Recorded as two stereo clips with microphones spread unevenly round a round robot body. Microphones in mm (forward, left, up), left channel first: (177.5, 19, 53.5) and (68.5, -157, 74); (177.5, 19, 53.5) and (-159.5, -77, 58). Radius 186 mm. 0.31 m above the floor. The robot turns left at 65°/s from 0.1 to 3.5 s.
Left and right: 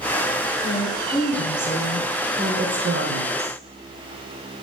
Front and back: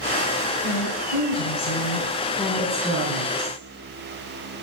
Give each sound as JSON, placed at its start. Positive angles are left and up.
{"t": 0.6, "sound": "a woman speaking", "azimuth_deg": 45, "distance_m": 2.5}